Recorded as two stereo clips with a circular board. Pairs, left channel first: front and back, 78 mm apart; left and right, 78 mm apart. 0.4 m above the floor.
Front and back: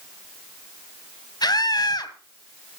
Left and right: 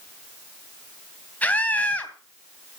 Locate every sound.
1.4 s a scream: 20° left, 3 m